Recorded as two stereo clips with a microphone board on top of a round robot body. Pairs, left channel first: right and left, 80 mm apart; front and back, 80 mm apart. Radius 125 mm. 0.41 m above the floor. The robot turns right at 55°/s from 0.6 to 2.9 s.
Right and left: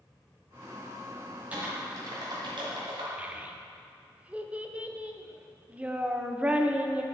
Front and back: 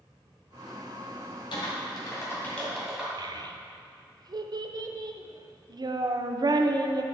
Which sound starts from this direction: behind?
A child speaking, at 3.2 s.